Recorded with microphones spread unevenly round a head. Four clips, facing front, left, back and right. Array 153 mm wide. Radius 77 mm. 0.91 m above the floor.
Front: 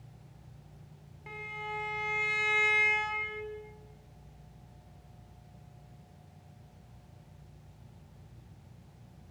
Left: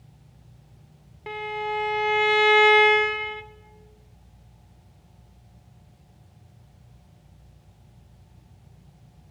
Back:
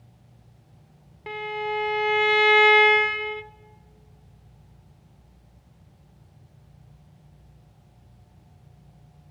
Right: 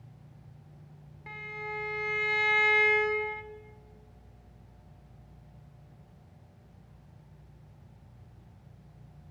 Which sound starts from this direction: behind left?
A violin, at 1.3 s.